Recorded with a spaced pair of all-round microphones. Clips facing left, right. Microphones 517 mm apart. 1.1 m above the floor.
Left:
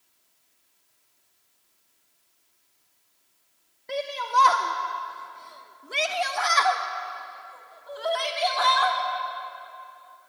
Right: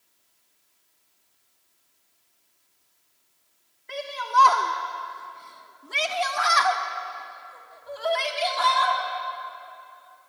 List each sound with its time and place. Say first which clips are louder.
3.9 s a shout: left 2 dB; 60° left (ahead or behind), 1.5 m; by 9.0 s 50° right (ahead or behind), 4 m